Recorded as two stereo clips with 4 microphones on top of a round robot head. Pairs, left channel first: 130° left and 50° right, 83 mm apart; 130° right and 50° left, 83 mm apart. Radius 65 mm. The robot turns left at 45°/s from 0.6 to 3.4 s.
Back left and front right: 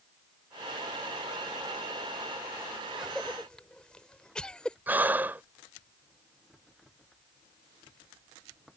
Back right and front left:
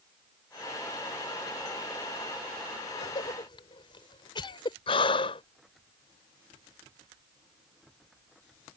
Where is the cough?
130° right; by 4.8 s 150° right.